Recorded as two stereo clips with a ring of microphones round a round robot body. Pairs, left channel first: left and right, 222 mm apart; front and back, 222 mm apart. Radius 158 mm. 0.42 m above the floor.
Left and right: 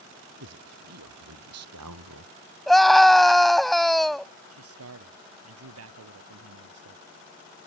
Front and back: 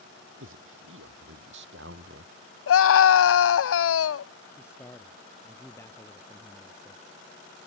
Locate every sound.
0.4 s a man speaking: 125° right; by 2.3 s 120° right
2.7 s a scream: straight ahead
4.5 s a man speaking: 85° right